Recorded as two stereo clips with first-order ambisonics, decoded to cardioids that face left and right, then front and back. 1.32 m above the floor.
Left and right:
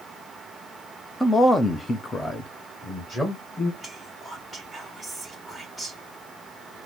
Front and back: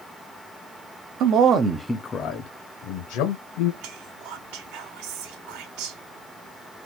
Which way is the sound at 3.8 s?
Straight behind.